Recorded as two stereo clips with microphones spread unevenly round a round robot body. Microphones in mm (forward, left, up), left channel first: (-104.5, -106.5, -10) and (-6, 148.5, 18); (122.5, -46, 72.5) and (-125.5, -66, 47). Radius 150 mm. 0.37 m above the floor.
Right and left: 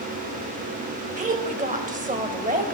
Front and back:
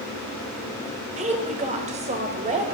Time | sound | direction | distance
1.2 | a woman speaking | 130° left | 1.7 m